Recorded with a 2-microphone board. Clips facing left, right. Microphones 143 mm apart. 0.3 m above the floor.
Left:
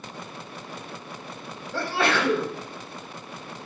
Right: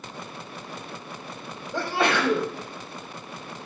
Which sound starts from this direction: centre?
A sneeze, at 1.7 s.